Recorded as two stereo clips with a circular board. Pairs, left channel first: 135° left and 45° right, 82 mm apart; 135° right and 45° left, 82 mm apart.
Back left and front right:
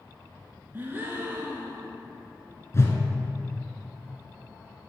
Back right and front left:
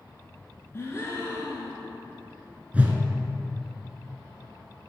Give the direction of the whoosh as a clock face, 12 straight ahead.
9 o'clock.